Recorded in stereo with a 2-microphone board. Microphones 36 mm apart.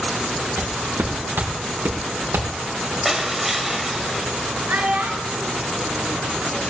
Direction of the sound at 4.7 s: 75° right (ahead or behind).